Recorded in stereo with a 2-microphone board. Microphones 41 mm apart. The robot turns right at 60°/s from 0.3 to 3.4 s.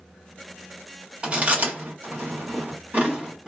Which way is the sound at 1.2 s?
30° right (ahead or behind).